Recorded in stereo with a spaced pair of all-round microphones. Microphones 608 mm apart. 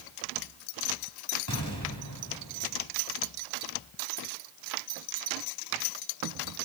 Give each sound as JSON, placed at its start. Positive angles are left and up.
{"t": 1.5, "sound": "an explosion", "side_deg": 30, "distance_m": 4.0}